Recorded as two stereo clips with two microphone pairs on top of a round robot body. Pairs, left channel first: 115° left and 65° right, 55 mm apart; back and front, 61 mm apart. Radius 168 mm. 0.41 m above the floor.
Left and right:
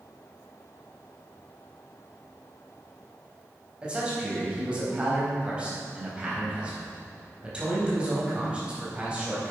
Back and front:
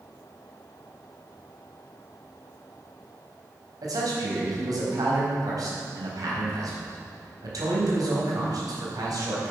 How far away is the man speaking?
About 4 m.